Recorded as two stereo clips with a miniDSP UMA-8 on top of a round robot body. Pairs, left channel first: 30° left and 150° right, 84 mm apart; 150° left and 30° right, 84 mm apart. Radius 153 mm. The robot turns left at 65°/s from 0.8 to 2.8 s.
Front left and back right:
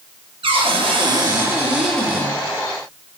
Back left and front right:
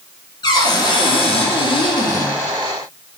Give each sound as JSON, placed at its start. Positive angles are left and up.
{"t": 0.4, "sound": "a cupboard door", "azimuth_deg": -175, "distance_m": 5.0}